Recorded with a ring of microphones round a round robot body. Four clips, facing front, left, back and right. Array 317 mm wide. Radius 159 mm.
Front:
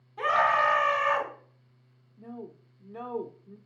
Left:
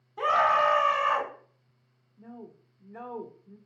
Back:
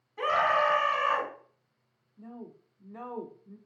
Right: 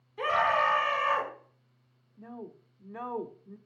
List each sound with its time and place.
0.2 s a scream: 100° left, 5 m
2.2 s a woman speaking: 80° right, 1.0 m